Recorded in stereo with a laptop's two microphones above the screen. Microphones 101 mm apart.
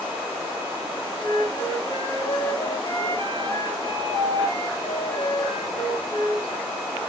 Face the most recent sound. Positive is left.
turn(degrees=80)